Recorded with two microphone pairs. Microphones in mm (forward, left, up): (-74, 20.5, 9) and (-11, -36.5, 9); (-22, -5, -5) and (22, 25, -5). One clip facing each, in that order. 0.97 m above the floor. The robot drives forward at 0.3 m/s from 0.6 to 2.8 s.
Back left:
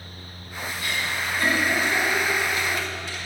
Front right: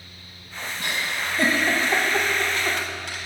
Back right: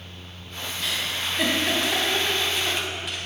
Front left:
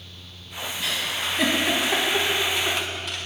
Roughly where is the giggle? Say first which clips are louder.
Front right 1 dB, front left 1 dB; ahead right.